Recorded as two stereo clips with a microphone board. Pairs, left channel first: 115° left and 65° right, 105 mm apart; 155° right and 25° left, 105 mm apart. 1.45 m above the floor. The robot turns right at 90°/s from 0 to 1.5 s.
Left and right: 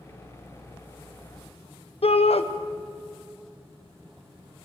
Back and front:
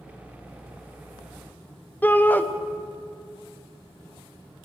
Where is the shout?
130° left, 1.1 m.